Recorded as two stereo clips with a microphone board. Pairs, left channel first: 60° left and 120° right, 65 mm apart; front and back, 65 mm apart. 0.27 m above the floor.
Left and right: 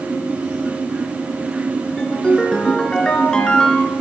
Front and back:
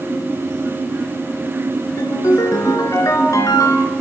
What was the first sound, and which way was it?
A ringtone, 15° right.